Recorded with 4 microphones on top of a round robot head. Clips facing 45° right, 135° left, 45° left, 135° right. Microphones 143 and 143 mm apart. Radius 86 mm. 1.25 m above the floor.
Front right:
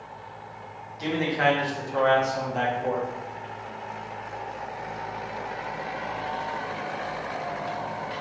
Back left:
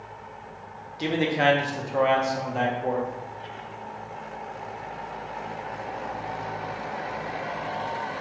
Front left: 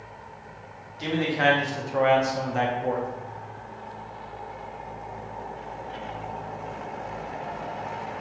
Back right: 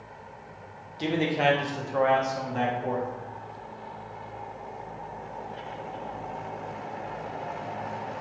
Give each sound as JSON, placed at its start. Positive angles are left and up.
{"t": 1.0, "sound": "a man speaking", "azimuth_deg": -175, "distance_m": 0.7}